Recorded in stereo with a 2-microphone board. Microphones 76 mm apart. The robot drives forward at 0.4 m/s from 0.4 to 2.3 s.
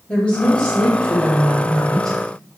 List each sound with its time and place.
0.1 s a woman speaking: 15° left (ahead or behind), 0.7 m; by 2.2 s 5° left (ahead or behind), 1.4 m